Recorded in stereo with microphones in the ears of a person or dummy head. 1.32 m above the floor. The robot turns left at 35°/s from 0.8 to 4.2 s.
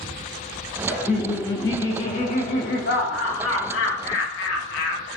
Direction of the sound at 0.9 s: 175° right.